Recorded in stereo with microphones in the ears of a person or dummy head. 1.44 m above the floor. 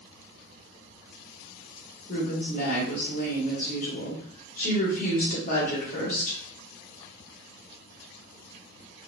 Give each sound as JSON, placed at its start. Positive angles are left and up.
{"t": 2.1, "sound": "a woman speaking", "side_deg": 45, "distance_m": 1.1}